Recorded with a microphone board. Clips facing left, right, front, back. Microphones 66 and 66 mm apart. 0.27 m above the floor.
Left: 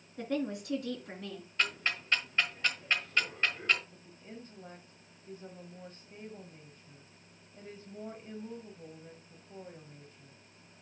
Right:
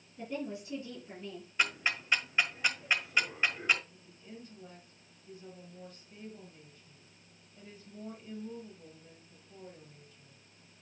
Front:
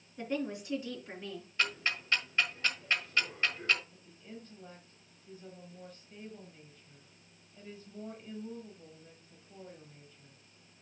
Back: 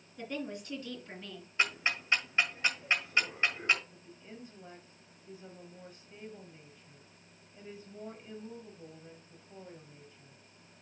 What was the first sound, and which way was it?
A woman speaking, 75° left.